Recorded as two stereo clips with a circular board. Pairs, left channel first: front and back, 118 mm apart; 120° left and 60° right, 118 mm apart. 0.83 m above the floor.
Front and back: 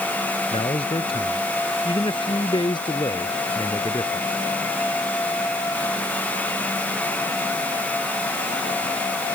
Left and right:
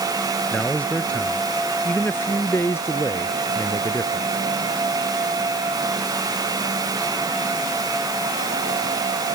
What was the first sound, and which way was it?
A man speaking, 40° left.